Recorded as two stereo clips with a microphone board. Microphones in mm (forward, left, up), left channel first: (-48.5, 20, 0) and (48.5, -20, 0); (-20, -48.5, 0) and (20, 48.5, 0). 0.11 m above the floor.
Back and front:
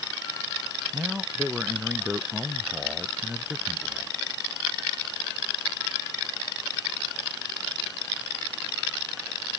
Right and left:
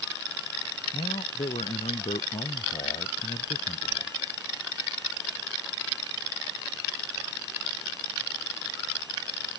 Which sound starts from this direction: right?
A man speaking, at 0.9 s.